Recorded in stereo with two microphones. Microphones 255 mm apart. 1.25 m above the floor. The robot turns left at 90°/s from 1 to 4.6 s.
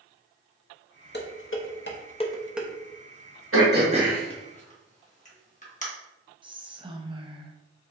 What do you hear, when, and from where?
1.1 s dishes clattering: 40° left (ahead or behind), 0.7 m; by 2.7 s 10° right (ahead or behind), 0.7 m
3.5 s throat clearing: 55° right (ahead or behind), 1.1 m; by 5.8 s 30° left (ahead or behind), 1.1 m
6.4 s whispering: 20° right (ahead or behind), 0.7 m